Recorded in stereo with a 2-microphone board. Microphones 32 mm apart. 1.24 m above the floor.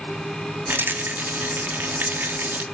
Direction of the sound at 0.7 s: 75° right (ahead or behind).